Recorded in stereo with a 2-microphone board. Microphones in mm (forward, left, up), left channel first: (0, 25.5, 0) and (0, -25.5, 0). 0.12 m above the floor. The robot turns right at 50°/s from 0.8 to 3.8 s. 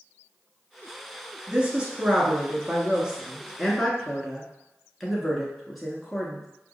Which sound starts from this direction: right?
A woman speaking, at 1.5 s.